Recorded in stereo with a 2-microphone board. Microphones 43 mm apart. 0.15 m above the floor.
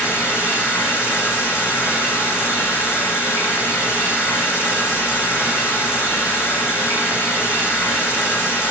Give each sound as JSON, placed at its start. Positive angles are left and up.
{"t": 0.0, "sound": "running water", "side_deg": 80, "distance_m": 7.5}